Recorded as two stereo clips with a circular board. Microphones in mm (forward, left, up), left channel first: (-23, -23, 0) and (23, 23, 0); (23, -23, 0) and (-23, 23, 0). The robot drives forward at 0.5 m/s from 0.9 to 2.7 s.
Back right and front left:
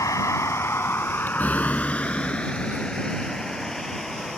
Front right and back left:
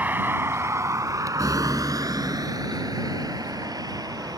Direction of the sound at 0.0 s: 160° right.